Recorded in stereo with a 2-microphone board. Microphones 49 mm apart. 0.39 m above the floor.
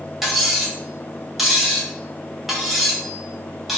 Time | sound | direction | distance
0.2 | cutlery clinking | 5° right (ahead or behind) | 1.0 m